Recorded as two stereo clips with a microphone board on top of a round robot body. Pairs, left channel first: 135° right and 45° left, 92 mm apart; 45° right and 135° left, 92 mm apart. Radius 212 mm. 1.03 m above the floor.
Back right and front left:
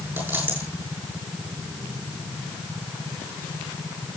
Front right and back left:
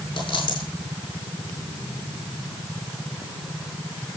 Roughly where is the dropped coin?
Ahead.